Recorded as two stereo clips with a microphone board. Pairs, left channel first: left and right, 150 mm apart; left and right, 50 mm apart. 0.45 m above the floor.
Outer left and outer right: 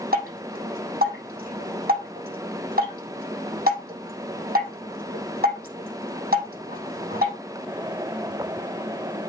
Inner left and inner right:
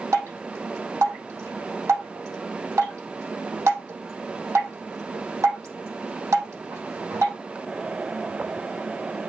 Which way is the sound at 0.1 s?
75° right (ahead or behind).